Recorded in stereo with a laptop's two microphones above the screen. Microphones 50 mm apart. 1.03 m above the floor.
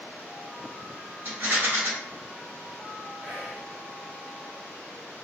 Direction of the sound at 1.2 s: 35° right (ahead or behind).